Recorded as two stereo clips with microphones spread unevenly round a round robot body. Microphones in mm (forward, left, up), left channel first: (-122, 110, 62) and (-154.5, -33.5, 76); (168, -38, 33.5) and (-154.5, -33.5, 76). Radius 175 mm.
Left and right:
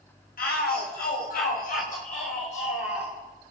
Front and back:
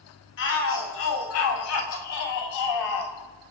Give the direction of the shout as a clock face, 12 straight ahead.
10 o'clock.